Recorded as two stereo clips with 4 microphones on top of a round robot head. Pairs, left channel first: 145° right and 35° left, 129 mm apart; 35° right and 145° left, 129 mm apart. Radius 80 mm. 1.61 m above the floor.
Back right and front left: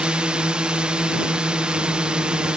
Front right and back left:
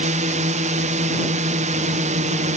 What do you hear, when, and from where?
0.0 s a drone: 120° left